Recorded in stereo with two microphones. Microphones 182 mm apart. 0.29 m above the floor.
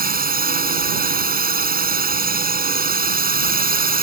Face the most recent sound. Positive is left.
turn(degrees=-55)  # may be behind; listen again after turning